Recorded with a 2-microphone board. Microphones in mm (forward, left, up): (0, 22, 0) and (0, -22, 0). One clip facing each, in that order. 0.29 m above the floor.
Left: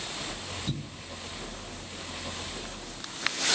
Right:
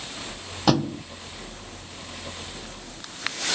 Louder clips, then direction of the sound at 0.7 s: Right 15 dB; 70° right (ahead or behind).